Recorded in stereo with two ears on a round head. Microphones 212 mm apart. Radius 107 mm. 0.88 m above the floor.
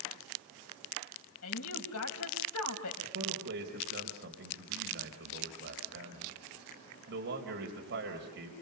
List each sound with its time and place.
1.4 s a woman speaking: 70° left (ahead or behind), 5 m
3.0 s a man speaking: 50° right (ahead or behind), 4 m